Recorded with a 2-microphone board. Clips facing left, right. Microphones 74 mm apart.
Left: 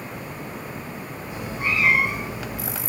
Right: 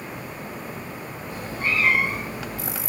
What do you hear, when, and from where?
1.3 s a cat meowing: 15° left (ahead or behind), 3 m